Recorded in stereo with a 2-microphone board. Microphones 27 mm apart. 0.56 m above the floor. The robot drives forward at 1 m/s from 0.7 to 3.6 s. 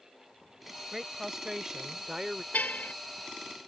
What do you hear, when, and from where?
0.9 s a woman speaking: 15° right (ahead or behind); by 2.4 s 30° right (ahead or behind)
2.5 s a car horn: 70° left (ahead or behind); by 2.9 s 75° left (ahead or behind)